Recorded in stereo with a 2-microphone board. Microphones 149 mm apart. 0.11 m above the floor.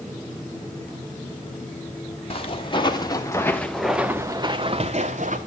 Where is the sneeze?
No sneeze in this recording.